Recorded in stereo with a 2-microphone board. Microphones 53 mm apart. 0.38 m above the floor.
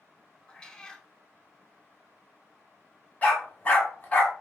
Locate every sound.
0.5 s a cat meowing: 15° left (ahead or behind), 0.6 m
3.2 s a dog barking: 30° left (ahead or behind), 1.2 m